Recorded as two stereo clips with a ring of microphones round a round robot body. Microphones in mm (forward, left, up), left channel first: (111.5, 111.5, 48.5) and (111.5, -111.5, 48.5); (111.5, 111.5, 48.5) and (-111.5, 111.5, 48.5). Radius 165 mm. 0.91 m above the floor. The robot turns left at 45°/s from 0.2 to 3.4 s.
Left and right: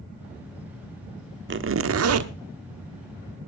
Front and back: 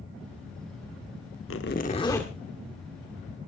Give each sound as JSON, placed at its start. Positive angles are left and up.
{"t": 1.5, "sound": "a zipper", "azimuth_deg": -50, "distance_m": 1.1}